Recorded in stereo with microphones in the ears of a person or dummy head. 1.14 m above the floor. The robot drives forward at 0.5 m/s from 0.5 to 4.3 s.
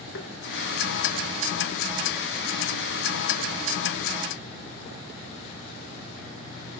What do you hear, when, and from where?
0.1 s tapping: 65° left (ahead or behind), 1.6 m